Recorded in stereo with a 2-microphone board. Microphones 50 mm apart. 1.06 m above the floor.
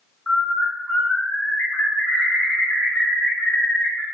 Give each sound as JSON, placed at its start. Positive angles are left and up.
{"t": 0.3, "sound": "a bird", "side_deg": 50, "distance_m": 1.6}